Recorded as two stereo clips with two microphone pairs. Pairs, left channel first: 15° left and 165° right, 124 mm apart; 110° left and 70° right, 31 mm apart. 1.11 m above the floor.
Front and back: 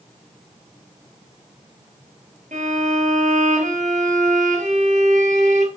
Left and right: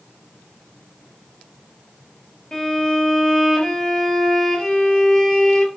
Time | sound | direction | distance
2.5 | a violin | 175° right | 5 m